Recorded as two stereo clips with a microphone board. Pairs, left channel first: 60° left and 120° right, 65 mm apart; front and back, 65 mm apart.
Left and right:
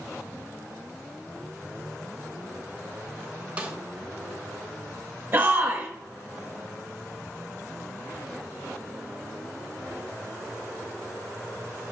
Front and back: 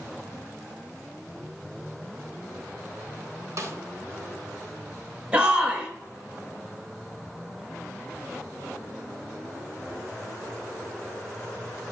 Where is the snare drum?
175° left, 0.6 m.